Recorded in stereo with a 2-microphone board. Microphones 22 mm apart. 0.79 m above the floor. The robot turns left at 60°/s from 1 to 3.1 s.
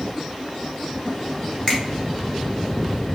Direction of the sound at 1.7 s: 30° left (ahead or behind).